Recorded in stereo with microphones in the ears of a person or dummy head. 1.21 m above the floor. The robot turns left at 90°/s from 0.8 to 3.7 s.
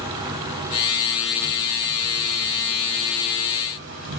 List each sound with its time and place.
0.0 s an insect: 155° right, 7.5 m; by 4.2 s 55° right, 7.5 m